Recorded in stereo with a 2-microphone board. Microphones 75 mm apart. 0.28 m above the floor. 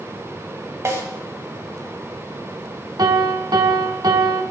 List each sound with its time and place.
0.8 s a snare drum: 40° right (ahead or behind), 1.2 m
3.0 s a piano: 70° right (ahead or behind), 1.0 m